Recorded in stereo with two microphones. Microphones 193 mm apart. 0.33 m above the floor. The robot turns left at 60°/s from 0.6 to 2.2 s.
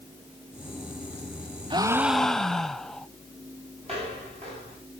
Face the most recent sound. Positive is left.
turn(degrees=-30)  # may be behind; listen again after turning